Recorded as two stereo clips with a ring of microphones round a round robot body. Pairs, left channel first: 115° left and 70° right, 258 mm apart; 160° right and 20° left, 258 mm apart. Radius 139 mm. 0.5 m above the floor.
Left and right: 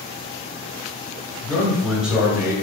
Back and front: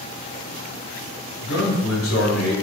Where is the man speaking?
165° right, 1.8 m; by 2.5 s 140° right, 1.6 m.